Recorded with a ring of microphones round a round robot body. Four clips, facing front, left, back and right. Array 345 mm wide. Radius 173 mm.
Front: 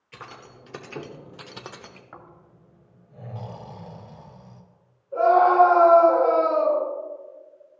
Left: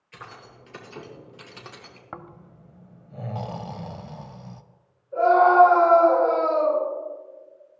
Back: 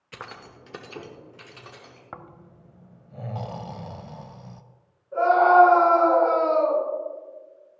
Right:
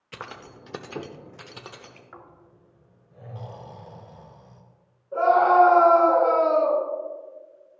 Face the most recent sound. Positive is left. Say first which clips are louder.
# left 1 dB, even
turn(degrees=-100)